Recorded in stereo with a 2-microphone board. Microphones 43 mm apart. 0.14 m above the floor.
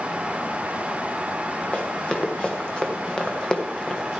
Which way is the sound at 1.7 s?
25° left (ahead or behind).